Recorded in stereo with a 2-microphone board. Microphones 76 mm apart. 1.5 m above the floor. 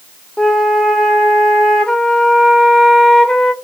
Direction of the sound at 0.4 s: 10° left (ahead or behind).